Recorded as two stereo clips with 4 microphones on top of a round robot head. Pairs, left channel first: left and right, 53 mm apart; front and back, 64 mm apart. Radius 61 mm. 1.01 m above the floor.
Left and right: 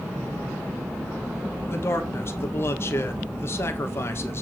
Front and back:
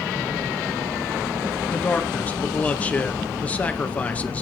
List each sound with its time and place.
1.7 s a man speaking: 60° left, 1.2 m